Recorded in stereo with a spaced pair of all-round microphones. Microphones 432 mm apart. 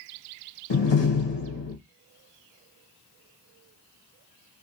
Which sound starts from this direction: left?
A door slam, at 0.7 s.